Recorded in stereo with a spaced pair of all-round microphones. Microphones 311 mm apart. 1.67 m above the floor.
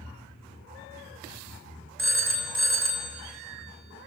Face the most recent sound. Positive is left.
turn(degrees=-45)  # may be behind; listen again after turning